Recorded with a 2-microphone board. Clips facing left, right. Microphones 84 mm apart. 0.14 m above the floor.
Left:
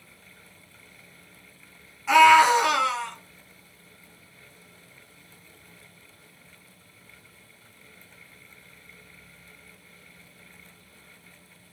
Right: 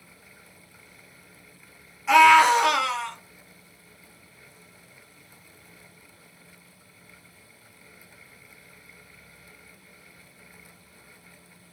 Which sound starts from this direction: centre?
A scream, at 2.1 s.